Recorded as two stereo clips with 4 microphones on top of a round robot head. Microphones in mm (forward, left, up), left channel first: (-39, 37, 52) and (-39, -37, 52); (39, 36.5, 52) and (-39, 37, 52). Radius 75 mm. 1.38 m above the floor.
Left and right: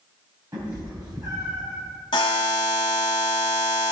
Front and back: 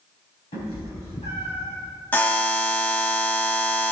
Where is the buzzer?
60° left, 1.0 m.